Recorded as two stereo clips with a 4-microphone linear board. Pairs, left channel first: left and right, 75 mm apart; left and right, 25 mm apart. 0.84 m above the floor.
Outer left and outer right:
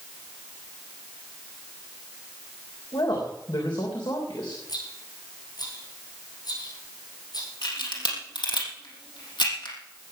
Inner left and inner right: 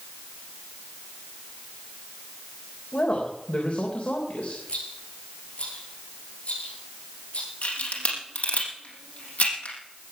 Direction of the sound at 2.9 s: 75° left (ahead or behind).